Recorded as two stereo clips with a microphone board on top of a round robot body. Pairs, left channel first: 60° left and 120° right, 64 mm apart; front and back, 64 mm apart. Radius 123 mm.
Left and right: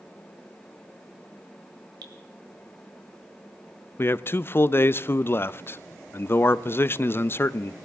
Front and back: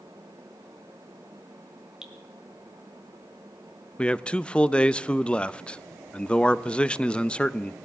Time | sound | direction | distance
2.0 | dripping | 100° right | 1.5 m
4.0 | a man speaking | 60° left | 0.5 m